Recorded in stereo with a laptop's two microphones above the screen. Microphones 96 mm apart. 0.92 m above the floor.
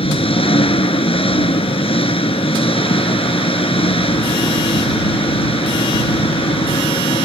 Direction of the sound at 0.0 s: 70° left (ahead or behind).